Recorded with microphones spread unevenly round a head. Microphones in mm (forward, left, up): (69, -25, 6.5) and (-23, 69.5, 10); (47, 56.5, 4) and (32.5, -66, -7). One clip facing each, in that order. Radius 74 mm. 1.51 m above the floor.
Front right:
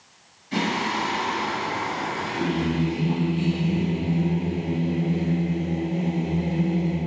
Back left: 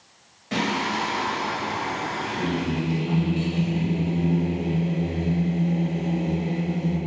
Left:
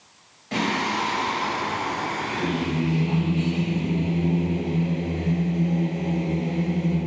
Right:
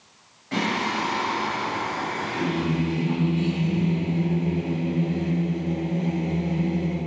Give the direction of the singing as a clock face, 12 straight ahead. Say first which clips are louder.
Even, left 1 dB; 7 o'clock.